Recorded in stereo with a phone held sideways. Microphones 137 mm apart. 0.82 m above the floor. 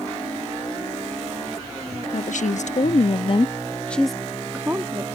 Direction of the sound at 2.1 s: 75° left (ahead or behind).